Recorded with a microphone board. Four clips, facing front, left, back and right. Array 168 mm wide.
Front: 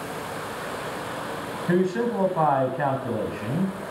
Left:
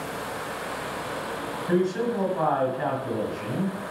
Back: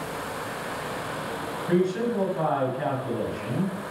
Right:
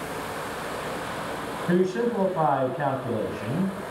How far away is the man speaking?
About 1.7 m.